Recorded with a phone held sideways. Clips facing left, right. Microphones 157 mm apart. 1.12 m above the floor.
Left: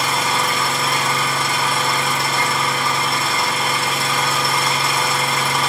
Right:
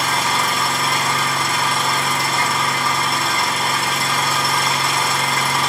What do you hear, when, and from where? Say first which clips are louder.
0.0 s an engine running: even; centre (ahead or behind), 1.0 m